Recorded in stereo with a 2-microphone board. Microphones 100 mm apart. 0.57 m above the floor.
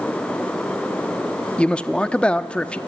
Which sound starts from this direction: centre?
A man speaking, at 1.6 s.